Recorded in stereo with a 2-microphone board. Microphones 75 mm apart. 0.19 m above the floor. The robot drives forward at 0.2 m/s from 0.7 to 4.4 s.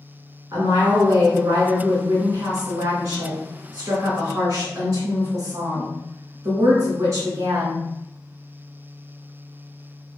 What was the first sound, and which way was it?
A woman speaking, 50° right (ahead or behind).